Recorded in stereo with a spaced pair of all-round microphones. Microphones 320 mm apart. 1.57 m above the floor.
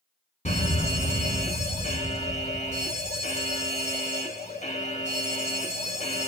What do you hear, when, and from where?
0.5 s a fire alarm: 20° left (ahead or behind), 1.6 m